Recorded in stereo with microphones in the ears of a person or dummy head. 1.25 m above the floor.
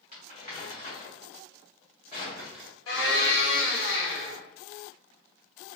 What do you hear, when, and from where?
0.1 s crumpling: 55° left (ahead or behind), 1.2 m
2.9 s a blender: 85° left, 1.5 m